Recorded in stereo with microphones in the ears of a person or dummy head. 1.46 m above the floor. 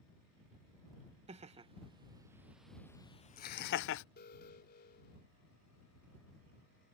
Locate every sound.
1.3 s laughter: 35° right (ahead or behind); by 4.0 s 70° left (ahead or behind)
4.2 s an alarm: 55° left (ahead or behind)